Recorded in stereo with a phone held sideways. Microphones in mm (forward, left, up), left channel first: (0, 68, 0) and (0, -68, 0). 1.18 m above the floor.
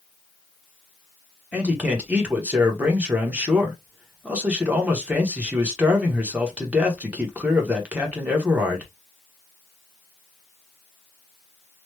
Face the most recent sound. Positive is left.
turn(degrees=-10)  # may be behind; listen again after turning